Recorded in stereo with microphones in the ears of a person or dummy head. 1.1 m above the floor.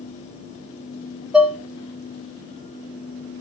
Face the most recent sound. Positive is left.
turn(degrees=0)  # may be behind; listen again after turning